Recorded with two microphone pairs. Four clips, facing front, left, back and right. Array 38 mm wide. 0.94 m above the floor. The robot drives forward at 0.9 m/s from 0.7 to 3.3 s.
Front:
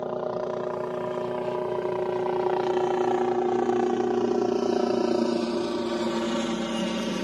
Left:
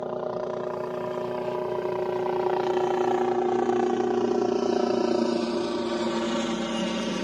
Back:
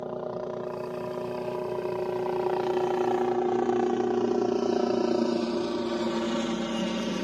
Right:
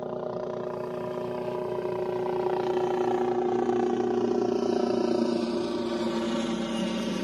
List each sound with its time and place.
0.0 s a helicopter: 40° left; by 7.2 s 70° left